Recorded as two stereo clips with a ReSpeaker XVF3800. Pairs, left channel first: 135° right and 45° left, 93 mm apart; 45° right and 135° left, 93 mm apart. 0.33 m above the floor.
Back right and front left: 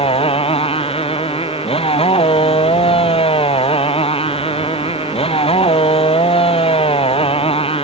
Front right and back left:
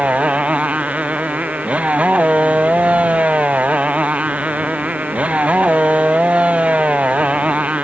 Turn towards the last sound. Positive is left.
turn(degrees=-145)